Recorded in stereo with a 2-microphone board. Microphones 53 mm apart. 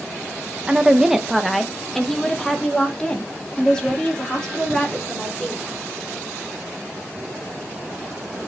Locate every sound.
0.7 s a woman speaking: 15° right (ahead or behind), 0.8 m; by 5.7 s 20° left (ahead or behind), 3.5 m